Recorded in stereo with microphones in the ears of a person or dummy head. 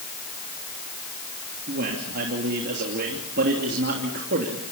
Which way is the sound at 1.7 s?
55° right (ahead or behind).